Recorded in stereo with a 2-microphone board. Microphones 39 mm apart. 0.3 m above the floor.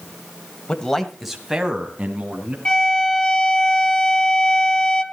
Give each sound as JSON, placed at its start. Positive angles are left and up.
{"t": 0.7, "sound": "a man speaking", "side_deg": 25, "distance_m": 1.4}
{"t": 2.6, "sound": "a violin", "side_deg": 25, "distance_m": 2.0}